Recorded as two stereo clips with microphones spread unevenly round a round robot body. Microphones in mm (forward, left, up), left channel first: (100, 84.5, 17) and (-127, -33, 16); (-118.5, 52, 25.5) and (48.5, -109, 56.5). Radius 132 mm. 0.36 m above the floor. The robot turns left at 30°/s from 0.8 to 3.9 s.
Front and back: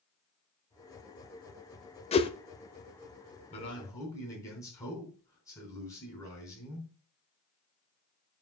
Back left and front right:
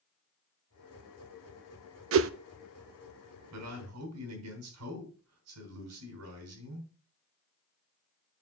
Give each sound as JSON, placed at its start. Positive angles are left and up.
{"t": 2.1, "sound": "a whoosh", "azimuth_deg": -35, "distance_m": 0.7}
{"t": 3.5, "sound": "a man speaking", "azimuth_deg": -40, "distance_m": 4.0}